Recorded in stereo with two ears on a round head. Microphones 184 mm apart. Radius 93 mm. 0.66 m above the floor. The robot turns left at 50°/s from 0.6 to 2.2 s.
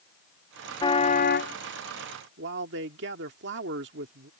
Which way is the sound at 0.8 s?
160° left.